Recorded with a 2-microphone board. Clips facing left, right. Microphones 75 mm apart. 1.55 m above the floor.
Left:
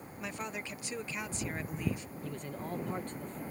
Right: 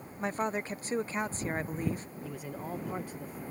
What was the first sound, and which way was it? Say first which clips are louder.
A woman speaking: right 8 dB; 40° right (ahead or behind).